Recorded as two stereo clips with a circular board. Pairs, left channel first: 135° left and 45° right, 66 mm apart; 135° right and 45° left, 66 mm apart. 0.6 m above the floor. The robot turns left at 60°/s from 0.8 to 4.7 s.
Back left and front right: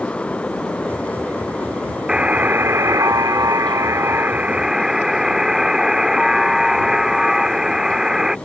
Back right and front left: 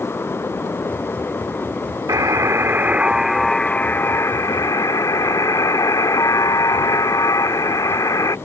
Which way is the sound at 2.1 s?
30° left.